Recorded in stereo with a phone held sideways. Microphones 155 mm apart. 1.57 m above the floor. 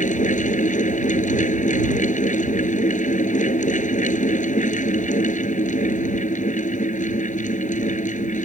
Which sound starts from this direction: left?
A fan, at 0.0 s.